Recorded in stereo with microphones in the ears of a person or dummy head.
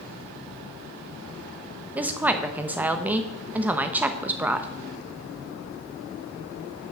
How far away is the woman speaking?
About 0.7 m.